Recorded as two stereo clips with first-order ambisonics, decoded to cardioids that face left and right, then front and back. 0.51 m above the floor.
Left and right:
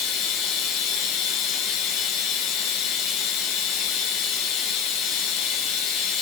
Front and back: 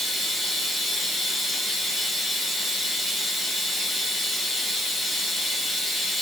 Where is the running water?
85° left, 0.8 m.